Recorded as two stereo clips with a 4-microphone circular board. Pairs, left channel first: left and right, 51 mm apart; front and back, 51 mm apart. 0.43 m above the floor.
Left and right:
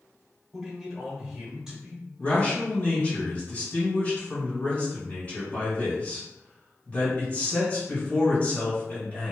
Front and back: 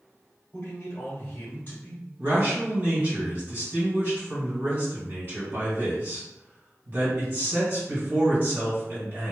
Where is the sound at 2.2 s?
145° left, 1.9 m.